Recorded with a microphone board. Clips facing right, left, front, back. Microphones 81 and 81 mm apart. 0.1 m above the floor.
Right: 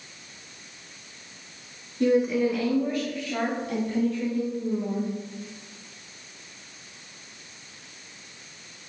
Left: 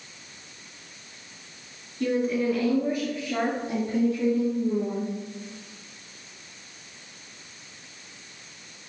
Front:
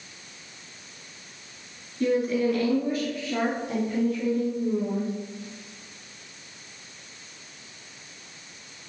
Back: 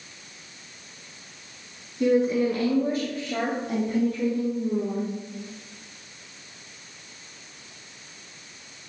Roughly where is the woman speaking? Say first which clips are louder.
Right 3 dB, back 2 dB; behind right.